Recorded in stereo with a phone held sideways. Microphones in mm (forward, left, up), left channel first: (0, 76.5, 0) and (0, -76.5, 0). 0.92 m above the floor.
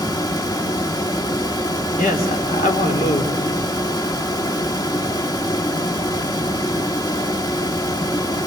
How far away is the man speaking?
About 2.5 m.